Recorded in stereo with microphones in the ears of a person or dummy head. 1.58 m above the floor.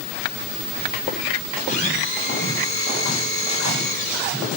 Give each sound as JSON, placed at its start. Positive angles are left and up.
{"t": 1.7, "sound": "a blender", "side_deg": 45, "distance_m": 6.0}